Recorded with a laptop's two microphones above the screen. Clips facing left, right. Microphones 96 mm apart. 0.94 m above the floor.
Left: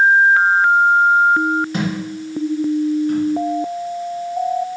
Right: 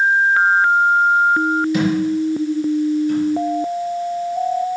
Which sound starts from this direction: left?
A thud, at 1.7 s.